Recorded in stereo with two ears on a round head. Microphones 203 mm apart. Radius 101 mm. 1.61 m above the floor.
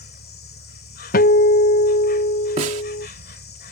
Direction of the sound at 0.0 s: 45° left (ahead or behind).